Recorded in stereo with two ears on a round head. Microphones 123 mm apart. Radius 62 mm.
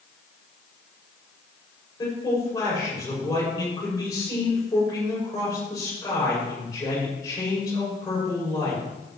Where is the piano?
No piano in this recording.